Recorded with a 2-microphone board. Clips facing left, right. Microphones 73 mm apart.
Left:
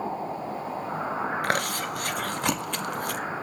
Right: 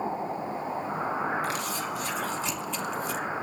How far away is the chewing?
About 1.0 m.